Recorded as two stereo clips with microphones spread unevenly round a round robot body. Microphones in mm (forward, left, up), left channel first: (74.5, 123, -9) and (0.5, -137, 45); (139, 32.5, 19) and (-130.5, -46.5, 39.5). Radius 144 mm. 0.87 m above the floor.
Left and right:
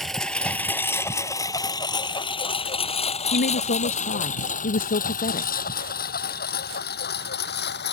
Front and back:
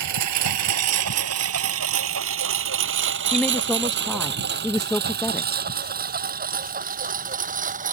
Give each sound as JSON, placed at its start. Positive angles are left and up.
{"t": 0.0, "sound": "a lawn mower", "azimuth_deg": 165}
{"t": 3.3, "sound": "a woman speaking", "azimuth_deg": 100}